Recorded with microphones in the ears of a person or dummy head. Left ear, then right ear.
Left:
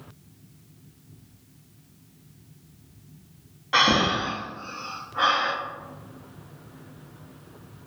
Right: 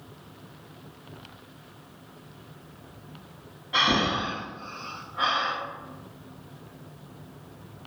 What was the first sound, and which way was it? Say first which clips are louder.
Breathing: left 3 dB; 50° left (ahead or behind).